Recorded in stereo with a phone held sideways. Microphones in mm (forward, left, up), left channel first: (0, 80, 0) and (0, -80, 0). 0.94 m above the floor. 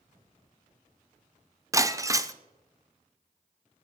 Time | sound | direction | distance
1.7 | breaking glass | 20° right (ahead or behind) | 0.6 m